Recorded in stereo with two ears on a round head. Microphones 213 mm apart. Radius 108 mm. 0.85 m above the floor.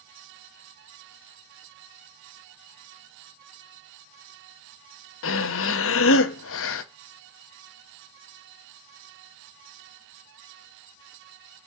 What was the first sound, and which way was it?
Breathing, 60° left (ahead or behind).